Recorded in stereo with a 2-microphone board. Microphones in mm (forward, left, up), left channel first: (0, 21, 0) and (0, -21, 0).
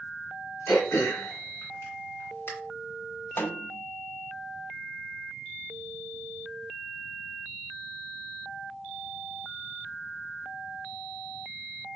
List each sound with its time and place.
0.7 s throat clearing: 65° left (ahead or behind), 2.5 m
3.4 s a snare drum: 60° left (ahead or behind), 0.6 m